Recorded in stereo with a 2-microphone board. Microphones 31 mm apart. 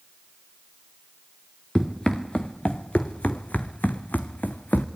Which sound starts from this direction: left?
Running footsteps, at 1.8 s.